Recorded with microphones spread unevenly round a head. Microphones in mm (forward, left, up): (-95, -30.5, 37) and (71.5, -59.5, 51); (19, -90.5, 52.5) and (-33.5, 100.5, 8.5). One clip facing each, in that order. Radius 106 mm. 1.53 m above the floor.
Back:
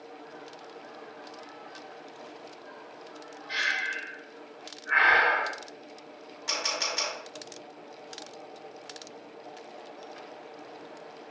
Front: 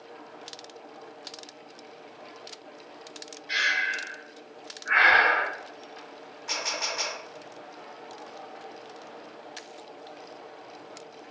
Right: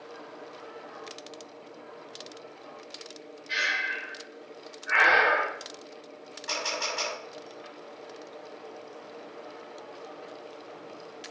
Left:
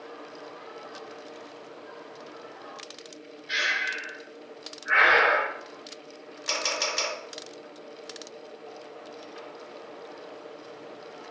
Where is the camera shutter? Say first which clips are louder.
Even, left 2 dB; 145° left, 3.5 m.